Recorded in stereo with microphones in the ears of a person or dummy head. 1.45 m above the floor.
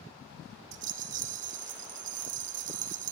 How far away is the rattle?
About 0.7 m.